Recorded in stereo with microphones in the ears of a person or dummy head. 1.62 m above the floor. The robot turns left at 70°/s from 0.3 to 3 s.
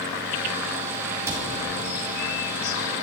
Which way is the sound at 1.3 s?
20° right (ahead or behind).